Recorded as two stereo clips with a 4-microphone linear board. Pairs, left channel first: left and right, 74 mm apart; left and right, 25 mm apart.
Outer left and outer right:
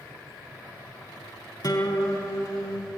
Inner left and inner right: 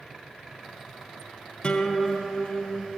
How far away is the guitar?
About 3 m.